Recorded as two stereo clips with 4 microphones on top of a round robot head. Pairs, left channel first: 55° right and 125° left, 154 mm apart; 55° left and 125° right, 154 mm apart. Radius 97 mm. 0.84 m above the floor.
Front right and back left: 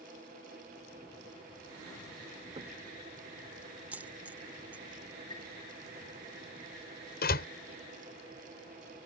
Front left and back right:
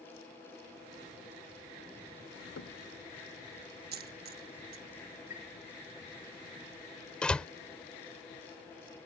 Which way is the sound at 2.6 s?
65° left.